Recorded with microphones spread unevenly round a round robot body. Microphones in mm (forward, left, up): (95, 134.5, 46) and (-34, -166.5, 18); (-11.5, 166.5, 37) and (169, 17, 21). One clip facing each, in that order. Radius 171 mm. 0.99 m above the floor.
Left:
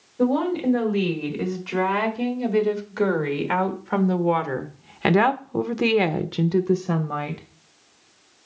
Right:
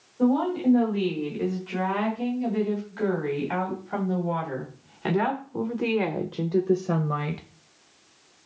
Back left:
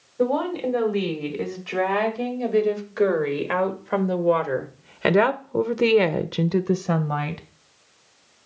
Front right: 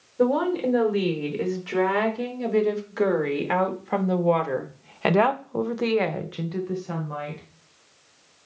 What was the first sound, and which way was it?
A woman speaking, 45° left.